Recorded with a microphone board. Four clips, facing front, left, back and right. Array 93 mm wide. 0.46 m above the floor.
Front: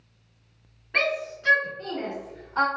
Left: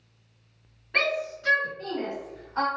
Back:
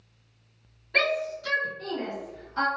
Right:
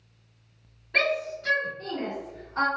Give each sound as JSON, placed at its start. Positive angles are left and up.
{"t": 0.9, "sound": "a shout", "azimuth_deg": 20, "distance_m": 1.3}